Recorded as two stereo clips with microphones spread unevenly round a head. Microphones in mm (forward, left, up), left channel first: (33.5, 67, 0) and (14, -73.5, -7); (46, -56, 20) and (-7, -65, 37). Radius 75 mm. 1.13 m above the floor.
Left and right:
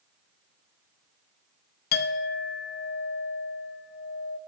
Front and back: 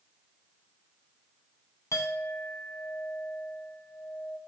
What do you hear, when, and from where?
1.9 s a clink: 85° left, 0.5 m